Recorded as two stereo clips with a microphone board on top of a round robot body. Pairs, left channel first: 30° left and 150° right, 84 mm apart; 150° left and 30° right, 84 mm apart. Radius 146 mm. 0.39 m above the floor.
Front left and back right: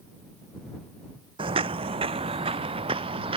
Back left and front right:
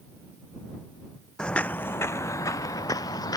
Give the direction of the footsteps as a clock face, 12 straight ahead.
4 o'clock.